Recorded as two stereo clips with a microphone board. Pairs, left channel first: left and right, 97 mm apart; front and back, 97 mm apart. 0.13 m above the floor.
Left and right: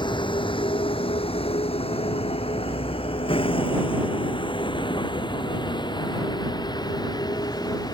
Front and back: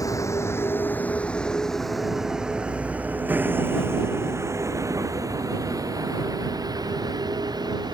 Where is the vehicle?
55° left; by 7.9 s 135° left.